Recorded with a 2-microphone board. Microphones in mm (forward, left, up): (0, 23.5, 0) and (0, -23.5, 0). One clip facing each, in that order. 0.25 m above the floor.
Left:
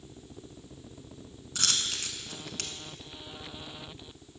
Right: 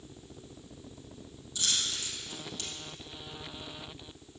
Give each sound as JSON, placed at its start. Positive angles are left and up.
{"t": 1.6, "sound": "a dropped coin", "side_deg": 70, "distance_m": 0.8}